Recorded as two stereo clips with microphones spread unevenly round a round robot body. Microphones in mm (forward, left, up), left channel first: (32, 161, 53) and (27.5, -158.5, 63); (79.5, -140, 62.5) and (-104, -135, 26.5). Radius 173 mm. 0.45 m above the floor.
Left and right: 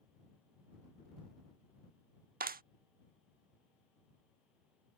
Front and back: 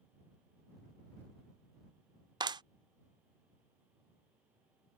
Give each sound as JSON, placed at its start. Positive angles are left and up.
{"t": 2.4, "sound": "a clap", "azimuth_deg": -145}